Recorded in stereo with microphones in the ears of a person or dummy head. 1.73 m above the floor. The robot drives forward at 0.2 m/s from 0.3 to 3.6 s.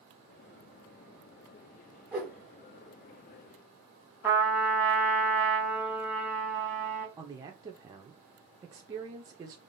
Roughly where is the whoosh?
Centre.